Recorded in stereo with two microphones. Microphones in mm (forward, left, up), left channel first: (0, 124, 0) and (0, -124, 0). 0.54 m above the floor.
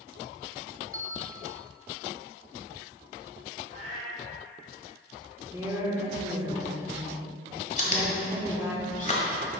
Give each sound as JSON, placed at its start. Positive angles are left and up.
{"t": 0.9, "sound": "a bell", "side_deg": -60, "distance_m": 0.8}
{"t": 3.7, "sound": "a cat meowing", "side_deg": -80, "distance_m": 2.5}
{"t": 5.5, "sound": "a woman speaking", "side_deg": -10, "distance_m": 1.1}
{"t": 7.8, "sound": "chewing", "side_deg": 35, "distance_m": 1.2}